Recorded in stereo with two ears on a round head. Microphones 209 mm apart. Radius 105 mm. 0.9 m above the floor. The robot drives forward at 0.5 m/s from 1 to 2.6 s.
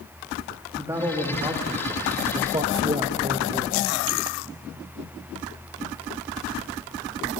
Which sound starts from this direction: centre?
A man speaking, at 0.7 s.